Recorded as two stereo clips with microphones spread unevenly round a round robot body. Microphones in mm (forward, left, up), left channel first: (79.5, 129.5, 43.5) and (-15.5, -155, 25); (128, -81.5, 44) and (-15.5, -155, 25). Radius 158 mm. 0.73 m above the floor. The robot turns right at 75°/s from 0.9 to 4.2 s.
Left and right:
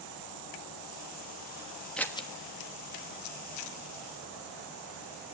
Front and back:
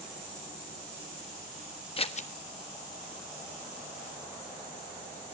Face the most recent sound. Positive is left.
turn(degrees=150)